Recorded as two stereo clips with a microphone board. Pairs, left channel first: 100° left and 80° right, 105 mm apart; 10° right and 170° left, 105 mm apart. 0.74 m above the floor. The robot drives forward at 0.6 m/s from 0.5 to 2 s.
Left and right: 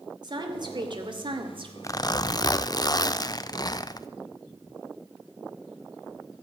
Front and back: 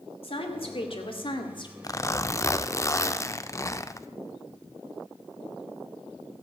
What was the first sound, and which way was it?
A woman speaking, 35° right.